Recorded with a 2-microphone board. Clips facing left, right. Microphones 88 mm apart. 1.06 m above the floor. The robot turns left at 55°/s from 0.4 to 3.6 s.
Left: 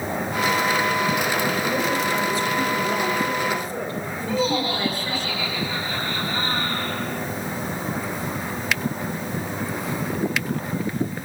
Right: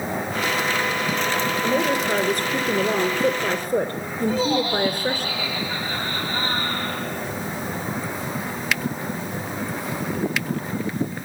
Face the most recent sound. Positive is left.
turn(degrees=-30)  # may be behind; listen again after turning